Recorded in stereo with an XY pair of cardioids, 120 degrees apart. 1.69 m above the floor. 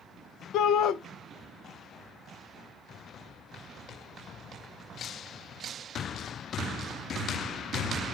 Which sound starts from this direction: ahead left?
A shout, at 0.5 s.